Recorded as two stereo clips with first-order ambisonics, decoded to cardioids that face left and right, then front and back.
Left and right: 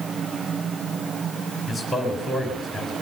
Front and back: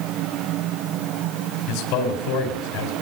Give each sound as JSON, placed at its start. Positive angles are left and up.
{"t": 1.7, "sound": "a man speaking", "azimuth_deg": 0, "distance_m": 4.5}